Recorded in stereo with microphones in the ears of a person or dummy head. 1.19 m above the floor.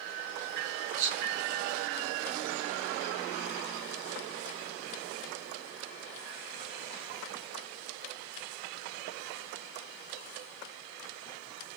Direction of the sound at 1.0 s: 35° right (ahead or behind).